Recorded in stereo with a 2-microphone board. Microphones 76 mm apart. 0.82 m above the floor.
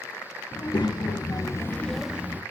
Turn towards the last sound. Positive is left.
turn(degrees=-25)  # may be behind; listen again after turning